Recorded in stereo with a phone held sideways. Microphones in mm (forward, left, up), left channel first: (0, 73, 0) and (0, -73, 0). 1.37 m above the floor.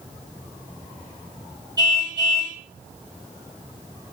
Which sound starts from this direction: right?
A car horn, at 1.8 s.